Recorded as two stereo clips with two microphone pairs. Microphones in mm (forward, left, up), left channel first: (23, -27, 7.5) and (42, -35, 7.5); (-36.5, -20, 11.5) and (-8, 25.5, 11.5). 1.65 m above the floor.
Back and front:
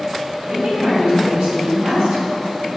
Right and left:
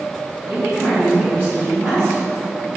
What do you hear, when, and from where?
0.4 s a woman speaking: 15° left, 2.5 m